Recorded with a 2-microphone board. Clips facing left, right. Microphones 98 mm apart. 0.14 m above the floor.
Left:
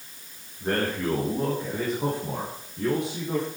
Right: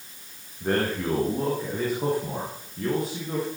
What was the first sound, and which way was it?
A man speaking, 5° right (ahead or behind).